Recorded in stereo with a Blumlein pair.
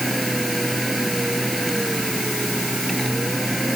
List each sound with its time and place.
0.0 s a machine running: 5° right